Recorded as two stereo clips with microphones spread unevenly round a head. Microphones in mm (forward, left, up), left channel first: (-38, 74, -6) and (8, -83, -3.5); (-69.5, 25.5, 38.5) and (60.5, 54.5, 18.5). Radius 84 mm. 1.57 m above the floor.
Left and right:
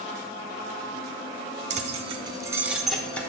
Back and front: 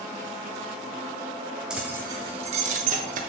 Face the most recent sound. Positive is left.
turn(degrees=25)